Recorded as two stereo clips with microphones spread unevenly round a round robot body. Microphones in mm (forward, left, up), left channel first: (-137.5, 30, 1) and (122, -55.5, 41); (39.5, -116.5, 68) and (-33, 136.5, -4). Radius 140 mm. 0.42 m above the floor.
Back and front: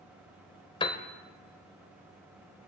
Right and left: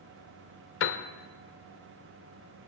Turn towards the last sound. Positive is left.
turn(degrees=-130)